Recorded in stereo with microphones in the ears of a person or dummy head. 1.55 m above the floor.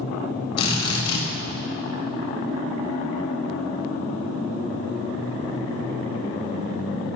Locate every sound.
0.6 s a drill: 30° left (ahead or behind), 8.5 m